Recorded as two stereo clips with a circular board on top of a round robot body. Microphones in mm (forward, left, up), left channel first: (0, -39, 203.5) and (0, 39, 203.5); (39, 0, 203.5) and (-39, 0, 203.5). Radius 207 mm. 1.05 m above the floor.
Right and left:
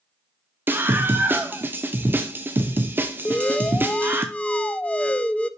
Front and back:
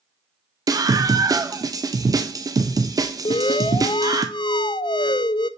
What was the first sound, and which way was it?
A scream, 150° left.